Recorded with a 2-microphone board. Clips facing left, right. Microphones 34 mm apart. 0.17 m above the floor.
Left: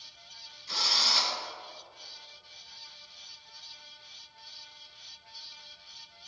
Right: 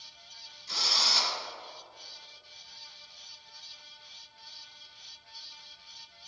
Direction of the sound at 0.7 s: 10° left (ahead or behind).